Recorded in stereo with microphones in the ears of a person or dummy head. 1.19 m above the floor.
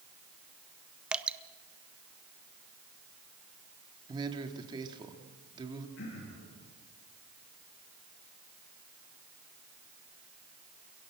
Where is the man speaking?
25° right (ahead or behind), 2.5 m.